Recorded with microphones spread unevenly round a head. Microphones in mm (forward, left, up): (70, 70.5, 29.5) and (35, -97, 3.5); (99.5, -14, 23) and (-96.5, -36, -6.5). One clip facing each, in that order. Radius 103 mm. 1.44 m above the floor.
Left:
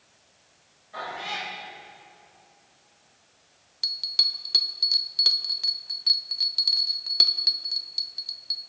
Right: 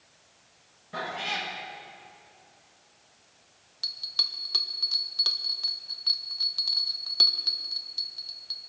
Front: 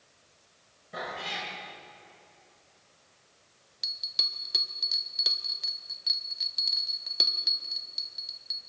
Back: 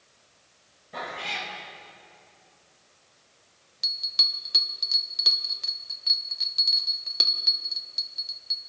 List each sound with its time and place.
0.9 s a cat meowing: 75° right, 6 m
3.8 s a bell: 75° left, 0.6 m